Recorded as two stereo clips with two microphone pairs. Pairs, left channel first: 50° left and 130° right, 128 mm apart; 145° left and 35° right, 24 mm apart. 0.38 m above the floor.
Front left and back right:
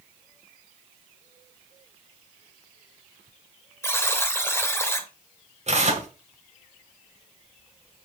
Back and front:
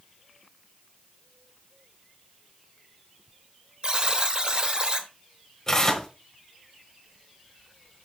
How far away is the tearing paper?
About 1.3 m.